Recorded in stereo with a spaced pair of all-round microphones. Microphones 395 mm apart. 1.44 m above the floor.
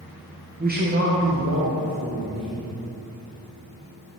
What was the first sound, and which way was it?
A man speaking, 20° right (ahead or behind).